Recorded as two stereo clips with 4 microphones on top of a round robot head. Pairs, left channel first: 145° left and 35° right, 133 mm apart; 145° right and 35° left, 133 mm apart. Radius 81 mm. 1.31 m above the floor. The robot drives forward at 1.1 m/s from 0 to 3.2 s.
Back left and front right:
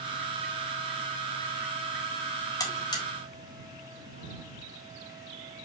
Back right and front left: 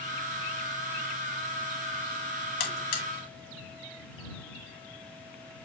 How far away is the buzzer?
About 2 m.